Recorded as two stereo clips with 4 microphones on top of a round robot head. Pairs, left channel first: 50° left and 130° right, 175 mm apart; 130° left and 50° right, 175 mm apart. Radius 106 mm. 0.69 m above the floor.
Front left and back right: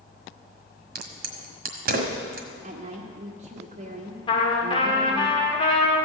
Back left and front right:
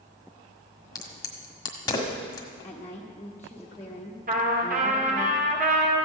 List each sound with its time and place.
0.9 s a crack: 160° right, 1.6 m
2.6 s a woman speaking: 155° right, 1.4 m
4.3 s a trumpet: 10° right, 2.5 m